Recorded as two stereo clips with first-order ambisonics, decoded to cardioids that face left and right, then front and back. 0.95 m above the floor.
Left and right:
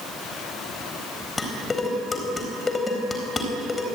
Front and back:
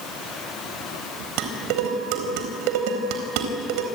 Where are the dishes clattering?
165° left, 4 m.